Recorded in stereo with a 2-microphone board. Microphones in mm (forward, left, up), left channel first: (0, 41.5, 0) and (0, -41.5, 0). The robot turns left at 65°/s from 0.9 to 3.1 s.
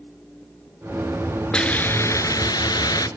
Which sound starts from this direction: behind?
A hiss, at 1.5 s.